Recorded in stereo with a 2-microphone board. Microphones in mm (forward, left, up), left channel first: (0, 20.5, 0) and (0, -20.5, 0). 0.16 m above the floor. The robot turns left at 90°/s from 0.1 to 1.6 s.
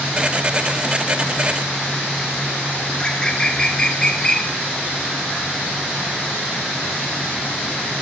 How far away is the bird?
About 0.7 m.